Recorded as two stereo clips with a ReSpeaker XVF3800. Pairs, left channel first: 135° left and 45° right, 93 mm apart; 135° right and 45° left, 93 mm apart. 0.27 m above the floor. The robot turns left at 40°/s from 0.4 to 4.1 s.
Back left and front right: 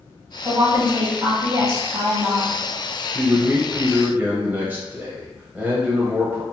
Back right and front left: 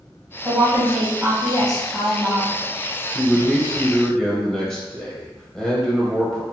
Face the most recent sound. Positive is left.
turn(degrees=-65)